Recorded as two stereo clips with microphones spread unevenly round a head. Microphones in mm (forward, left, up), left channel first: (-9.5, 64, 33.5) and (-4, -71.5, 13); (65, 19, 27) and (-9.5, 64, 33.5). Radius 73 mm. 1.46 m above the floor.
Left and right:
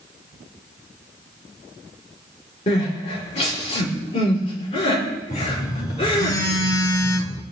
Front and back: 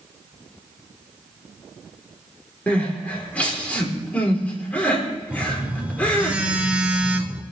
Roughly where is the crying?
Ahead left.